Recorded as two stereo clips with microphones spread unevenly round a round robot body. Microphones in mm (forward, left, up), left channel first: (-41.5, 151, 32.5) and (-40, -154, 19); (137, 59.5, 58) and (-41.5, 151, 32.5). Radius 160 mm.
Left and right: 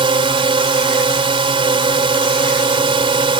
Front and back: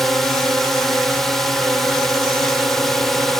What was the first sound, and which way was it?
A drone, 130° right.